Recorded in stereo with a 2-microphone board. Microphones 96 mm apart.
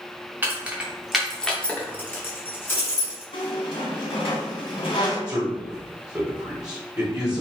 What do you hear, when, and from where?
0.4 s keys jangling: 20° right (ahead or behind), 0.7 m; by 3.2 s 25° left (ahead or behind), 1.3 m
3.3 s a squeak: 65° left (ahead or behind), 1.4 m
5.3 s a man speaking: 10° right (ahead or behind), 1.2 m